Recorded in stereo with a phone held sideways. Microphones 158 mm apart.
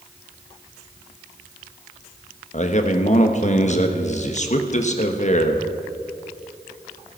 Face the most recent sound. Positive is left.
turn(degrees=50)  # may be behind; listen again after turning